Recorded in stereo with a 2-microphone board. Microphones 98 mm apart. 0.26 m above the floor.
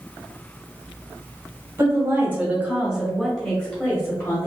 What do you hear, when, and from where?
1.8 s a woman speaking: 30° right (ahead or behind), 1.6 m; by 4.5 s 30° left (ahead or behind), 1.4 m